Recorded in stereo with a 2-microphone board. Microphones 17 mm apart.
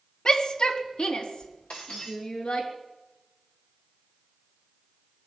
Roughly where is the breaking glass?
Left.